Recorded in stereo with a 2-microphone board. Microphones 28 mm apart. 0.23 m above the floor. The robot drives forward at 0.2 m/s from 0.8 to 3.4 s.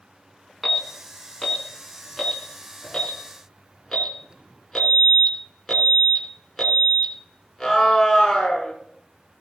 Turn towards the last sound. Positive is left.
turn(degrees=0)  # may be behind; listen again after turning